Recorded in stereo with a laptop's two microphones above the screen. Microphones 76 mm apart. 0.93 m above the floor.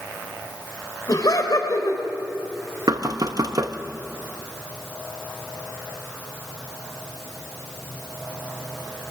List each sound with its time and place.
1.1 s laughter: 55° left (ahead or behind), 4 m
2.9 s knocking: 55° right (ahead or behind), 0.9 m